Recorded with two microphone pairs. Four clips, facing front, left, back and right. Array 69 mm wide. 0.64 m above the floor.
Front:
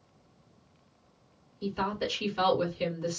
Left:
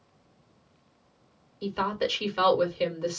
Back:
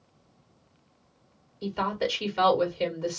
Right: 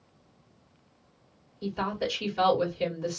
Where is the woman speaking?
110° left, 2 m.